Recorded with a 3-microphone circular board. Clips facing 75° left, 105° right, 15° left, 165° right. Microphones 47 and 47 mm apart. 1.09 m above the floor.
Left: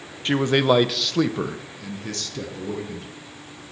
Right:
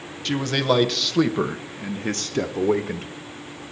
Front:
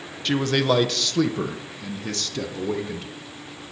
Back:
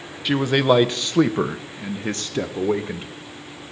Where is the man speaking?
120° left, 0.9 m; by 3.1 s 110° right, 1.2 m.